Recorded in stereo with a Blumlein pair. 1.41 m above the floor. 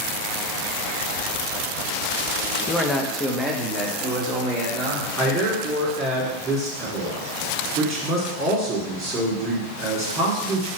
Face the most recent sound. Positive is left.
turn(degrees=-30)